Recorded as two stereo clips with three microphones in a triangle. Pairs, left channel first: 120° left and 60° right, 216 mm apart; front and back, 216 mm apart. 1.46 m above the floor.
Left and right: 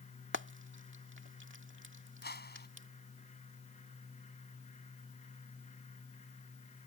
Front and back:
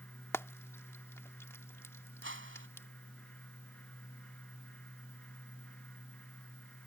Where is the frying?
75° right.